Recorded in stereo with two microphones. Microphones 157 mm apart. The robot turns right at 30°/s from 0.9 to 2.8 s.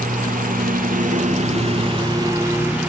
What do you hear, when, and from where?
0.0 s a lawn mower: 60° right (ahead or behind); by 2.9 s 10° right (ahead or behind)